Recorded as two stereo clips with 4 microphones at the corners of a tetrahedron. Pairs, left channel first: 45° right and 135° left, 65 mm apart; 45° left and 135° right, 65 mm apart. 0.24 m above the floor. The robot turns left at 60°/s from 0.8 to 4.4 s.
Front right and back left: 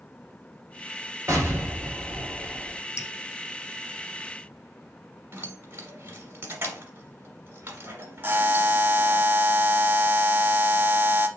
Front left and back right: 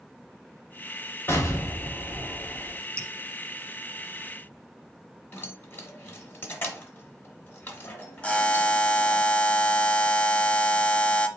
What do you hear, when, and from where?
1.3 s an explosion: 95° left, 1.3 m; by 2.8 s 5° left, 1.3 m
3.0 s dripping: 25° right, 0.8 m; by 3.1 s 35° right, 0.8 m
5.3 s keys jangling: 90° left, 1.1 m
8.2 s a buzzer: 105° left, 0.6 m